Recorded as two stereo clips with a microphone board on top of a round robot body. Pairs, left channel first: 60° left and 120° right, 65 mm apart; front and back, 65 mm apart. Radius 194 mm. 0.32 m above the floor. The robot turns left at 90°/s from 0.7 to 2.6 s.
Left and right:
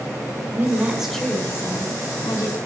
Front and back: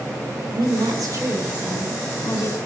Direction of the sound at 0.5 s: Straight behind.